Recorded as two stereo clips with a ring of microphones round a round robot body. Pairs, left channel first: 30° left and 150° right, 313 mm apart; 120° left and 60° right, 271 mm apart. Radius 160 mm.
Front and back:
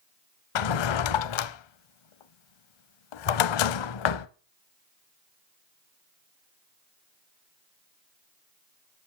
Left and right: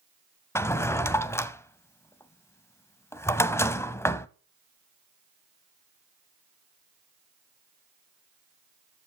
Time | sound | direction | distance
0.6 | a drawer | 40° left | 0.7 m